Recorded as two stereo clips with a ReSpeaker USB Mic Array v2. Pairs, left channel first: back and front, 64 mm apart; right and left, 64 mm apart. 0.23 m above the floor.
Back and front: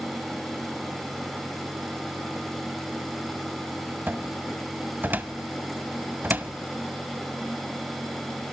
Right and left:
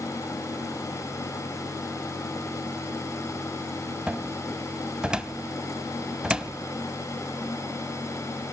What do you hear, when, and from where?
4.1 s a cupboard door: 25° left, 0.8 m